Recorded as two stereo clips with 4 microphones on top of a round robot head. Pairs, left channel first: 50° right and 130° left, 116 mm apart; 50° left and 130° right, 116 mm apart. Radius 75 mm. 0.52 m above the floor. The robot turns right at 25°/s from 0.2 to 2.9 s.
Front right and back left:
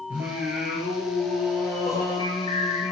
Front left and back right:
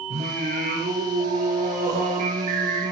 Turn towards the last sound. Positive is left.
turn(degrees=-85)